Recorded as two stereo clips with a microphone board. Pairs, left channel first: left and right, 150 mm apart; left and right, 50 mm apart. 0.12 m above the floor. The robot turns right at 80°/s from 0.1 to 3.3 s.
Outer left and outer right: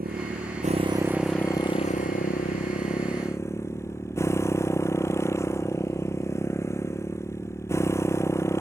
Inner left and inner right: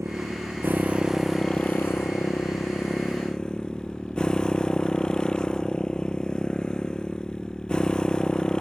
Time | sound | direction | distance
0.0 | a motorcycle | 95° right | ?